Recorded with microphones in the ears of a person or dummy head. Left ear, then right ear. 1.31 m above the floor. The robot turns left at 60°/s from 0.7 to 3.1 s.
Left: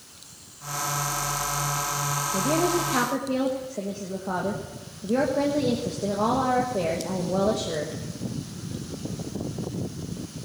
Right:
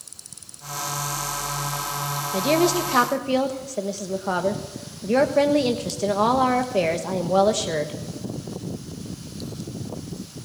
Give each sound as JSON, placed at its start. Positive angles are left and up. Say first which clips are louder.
{"t": 2.3, "sound": "a woman speaking", "louder": "right 5 dB", "azimuth_deg": -60, "distance_m": 1.3}